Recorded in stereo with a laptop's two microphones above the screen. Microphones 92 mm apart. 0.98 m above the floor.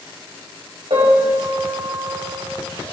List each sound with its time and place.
0.9 s a piano: 85° right, 5.5 m